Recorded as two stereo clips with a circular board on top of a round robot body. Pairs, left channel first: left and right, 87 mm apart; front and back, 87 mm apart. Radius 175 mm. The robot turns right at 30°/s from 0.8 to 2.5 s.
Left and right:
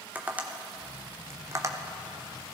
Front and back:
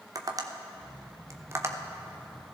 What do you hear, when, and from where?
0.1 s tapping: 160° right, 1.3 m; by 2.5 s 105° right, 1.3 m